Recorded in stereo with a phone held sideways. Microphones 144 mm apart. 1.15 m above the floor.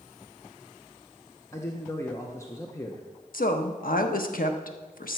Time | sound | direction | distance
1.5 | a man speaking | 20° left (ahead or behind) | 0.8 m
3.3 | a woman speaking | 70° left (ahead or behind) | 0.9 m